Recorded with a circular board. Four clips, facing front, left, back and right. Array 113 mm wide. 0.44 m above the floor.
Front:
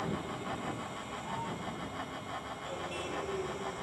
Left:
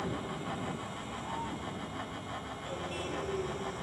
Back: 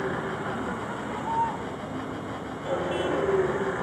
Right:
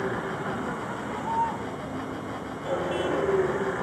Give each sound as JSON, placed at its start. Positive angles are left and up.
{"t": 0.0, "sound": "a vehicle", "azimuth_deg": -135}